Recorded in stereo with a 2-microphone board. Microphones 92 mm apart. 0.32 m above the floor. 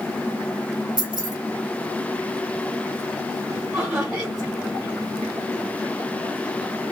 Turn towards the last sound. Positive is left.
turn(degrees=-5)  # may be behind; listen again after turning